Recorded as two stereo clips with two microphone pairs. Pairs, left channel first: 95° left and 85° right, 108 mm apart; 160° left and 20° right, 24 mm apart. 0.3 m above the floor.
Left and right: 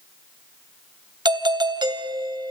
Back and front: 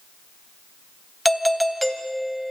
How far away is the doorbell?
About 2.5 m.